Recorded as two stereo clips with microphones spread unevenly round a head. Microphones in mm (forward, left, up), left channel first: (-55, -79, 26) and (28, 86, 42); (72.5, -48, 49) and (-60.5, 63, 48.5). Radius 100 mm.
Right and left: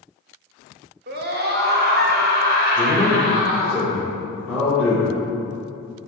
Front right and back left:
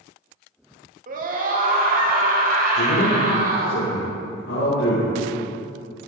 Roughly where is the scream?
Left.